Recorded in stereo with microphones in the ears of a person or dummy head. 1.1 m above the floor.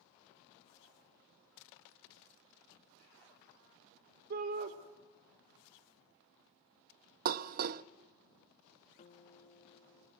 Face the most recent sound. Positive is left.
turn(degrees=35)  # may be behind; listen again after turning